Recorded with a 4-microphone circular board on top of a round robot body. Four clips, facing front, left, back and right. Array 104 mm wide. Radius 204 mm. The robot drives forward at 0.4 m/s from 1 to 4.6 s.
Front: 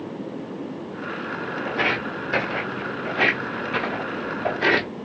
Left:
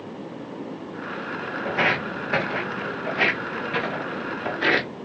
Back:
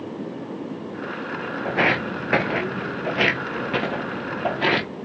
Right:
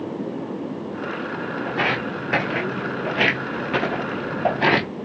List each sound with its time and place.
1.6 s footsteps: 165° left, 0.7 m; by 4.9 s 110° right, 1.1 m